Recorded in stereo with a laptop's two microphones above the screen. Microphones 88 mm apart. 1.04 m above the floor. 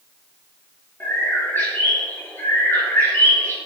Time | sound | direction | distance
1.0 | a bird | 25° left (ahead or behind) | 1.1 m